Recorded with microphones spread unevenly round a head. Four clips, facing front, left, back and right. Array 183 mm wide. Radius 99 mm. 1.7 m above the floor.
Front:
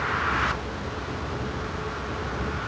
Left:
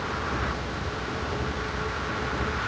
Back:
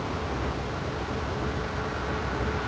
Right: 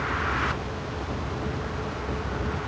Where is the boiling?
I don't hear boiling.